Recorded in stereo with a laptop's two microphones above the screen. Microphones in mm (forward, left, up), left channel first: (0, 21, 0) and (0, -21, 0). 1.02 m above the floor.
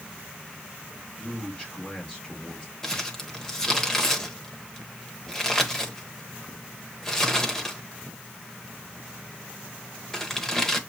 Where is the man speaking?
20° left (ahead or behind), 4 m.